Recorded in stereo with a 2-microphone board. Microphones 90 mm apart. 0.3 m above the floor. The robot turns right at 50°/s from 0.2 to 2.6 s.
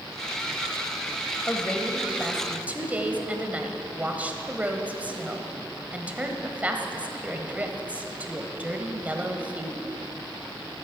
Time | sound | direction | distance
1.5 | a woman speaking | 150° left | 1.1 m